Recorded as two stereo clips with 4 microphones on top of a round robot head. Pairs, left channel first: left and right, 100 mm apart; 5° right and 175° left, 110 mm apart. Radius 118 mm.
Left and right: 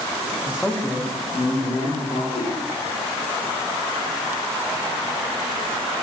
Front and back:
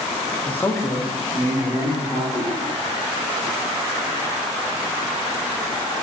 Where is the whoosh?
50° left, 0.8 m.